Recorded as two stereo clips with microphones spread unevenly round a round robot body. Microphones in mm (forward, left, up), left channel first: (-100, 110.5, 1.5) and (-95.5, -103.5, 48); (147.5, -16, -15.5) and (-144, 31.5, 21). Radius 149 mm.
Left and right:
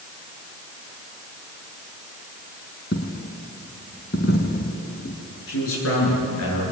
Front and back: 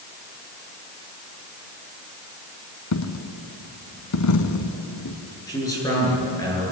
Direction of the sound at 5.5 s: 70° left.